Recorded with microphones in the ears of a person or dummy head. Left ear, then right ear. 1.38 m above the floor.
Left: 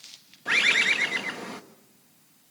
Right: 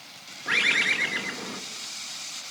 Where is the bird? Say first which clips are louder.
Left 1 dB; 15° left (ahead or behind), 1.1 m.